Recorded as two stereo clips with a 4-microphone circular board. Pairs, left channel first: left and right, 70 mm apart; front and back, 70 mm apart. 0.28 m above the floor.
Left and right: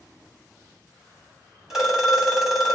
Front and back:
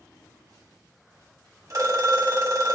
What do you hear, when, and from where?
1.7 s a phone ringing: 170° right, 1.2 m